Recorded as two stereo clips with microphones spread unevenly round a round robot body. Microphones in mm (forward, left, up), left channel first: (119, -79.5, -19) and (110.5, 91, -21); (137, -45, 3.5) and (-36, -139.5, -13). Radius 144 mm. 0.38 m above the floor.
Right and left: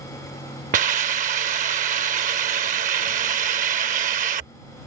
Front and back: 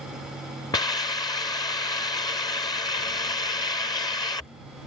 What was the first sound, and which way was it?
A hiss, 100° left.